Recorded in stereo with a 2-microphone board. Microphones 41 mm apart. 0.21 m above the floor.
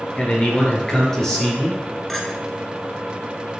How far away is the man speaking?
About 3 m.